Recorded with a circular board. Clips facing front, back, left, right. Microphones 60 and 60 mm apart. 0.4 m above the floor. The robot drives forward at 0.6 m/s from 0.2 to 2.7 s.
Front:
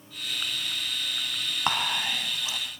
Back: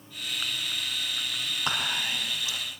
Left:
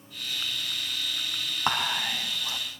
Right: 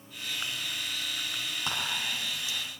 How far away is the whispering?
About 4 m.